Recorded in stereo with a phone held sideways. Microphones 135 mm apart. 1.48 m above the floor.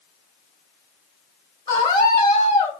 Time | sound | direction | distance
1.7 | a scream | 40° left (ahead or behind) | 3 m